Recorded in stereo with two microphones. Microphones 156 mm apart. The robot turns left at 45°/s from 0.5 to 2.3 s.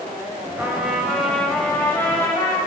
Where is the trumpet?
10° right (ahead or behind), 1.3 m; by 2.6 s 15° left (ahead or behind), 1.3 m.